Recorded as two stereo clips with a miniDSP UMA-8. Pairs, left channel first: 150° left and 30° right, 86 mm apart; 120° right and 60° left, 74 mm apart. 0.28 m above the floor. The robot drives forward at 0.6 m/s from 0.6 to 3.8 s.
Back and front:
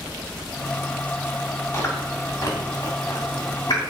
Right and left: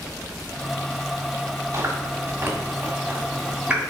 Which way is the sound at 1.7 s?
95° left.